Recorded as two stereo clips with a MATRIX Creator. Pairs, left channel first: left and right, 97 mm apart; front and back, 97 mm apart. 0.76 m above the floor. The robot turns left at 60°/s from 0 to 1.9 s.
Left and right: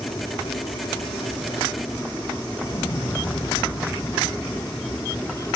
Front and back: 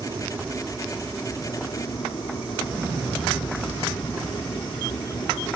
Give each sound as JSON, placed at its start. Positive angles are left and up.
{"t": 0.0, "sound": "an aircraft", "azimuth_deg": 145}
{"t": 2.6, "sound": "an explosion", "azimuth_deg": 110}